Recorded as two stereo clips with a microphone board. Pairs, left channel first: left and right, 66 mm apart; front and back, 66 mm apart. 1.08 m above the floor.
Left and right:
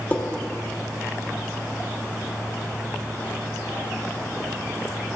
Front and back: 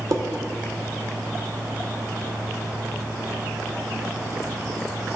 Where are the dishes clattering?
155° left, 1.0 m.